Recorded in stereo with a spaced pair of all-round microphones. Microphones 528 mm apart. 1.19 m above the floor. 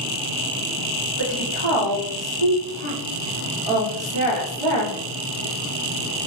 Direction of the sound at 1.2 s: 60° right (ahead or behind).